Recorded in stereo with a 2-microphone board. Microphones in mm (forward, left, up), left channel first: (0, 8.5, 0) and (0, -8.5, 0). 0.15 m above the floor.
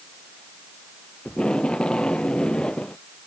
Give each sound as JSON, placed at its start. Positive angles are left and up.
{"t": 1.2, "sound": "tape being pulled", "side_deg": 60}